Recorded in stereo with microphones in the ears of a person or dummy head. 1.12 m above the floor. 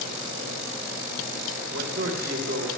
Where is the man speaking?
70° right (ahead or behind), 3.5 m.